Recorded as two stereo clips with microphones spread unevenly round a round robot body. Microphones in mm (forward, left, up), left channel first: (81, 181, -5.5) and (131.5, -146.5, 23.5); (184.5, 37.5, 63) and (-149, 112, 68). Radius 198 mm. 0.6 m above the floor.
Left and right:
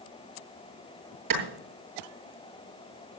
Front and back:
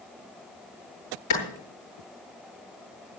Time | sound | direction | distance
1.3 | a clap | 60° right | 8.5 m